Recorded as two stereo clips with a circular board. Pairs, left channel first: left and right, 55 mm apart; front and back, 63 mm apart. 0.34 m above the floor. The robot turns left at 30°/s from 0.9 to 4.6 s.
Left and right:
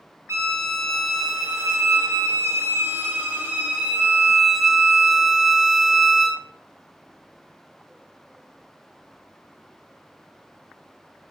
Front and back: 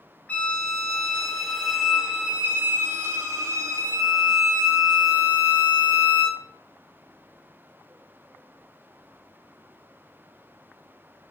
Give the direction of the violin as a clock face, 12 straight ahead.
2 o'clock.